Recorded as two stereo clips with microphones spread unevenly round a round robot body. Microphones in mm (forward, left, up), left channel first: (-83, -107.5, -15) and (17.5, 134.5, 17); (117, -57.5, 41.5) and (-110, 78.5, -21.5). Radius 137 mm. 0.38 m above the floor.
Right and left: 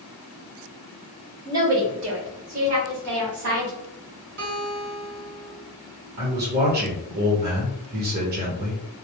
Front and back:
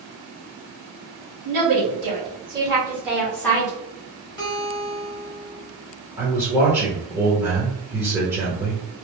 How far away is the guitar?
About 1.3 m.